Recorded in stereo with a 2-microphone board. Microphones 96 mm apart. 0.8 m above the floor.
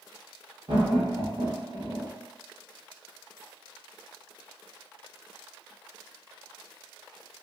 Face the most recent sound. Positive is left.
turn(degrees=-60)  # may be behind; listen again after turning